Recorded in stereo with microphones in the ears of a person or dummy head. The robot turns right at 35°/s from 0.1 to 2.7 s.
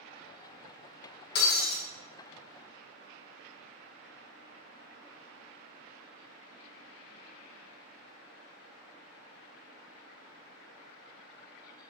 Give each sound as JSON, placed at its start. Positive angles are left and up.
{"t": 1.4, "sound": "breaking glass", "side_deg": 55, "distance_m": 1.1}